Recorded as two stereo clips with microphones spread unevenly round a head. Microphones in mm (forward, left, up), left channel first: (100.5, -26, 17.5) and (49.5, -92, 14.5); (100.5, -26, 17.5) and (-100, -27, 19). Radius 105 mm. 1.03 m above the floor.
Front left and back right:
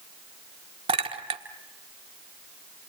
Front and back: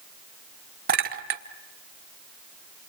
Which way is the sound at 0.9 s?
135° right.